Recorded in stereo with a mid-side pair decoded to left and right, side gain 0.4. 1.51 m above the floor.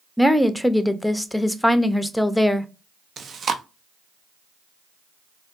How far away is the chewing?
About 0.6 m.